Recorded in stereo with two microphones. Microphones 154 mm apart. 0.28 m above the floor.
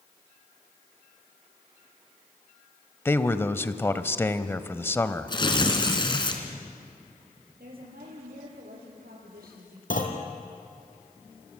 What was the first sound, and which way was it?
A man speaking, 15° left (ahead or behind).